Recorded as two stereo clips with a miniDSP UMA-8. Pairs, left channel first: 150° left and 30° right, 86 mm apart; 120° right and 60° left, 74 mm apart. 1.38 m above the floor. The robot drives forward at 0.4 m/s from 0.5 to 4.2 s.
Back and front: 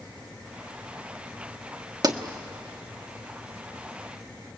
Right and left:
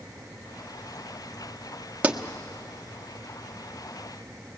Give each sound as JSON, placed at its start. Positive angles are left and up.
{"t": 2.0, "sound": "a pop", "azimuth_deg": -5, "distance_m": 1.2}